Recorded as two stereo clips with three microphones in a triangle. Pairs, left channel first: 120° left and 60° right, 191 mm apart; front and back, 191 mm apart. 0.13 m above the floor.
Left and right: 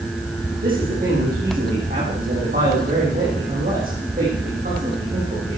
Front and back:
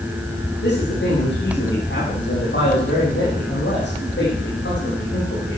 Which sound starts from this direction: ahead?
A man speaking, at 0.6 s.